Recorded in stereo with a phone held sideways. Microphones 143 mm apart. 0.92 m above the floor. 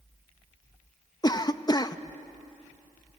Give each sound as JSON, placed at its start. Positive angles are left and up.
{"t": 1.2, "sound": "a cough", "side_deg": 30, "distance_m": 0.5}